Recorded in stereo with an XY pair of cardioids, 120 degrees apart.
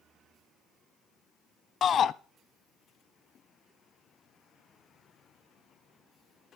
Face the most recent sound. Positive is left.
turn(degrees=50)